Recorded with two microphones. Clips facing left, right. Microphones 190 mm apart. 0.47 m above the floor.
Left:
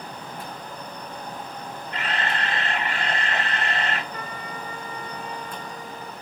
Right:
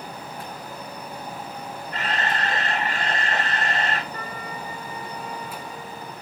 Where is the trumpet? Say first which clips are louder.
Right 1 dB; 40° right (ahead or behind), 3.5 m.